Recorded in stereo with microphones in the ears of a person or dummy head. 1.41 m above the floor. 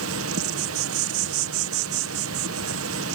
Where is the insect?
75° right (ahead or behind).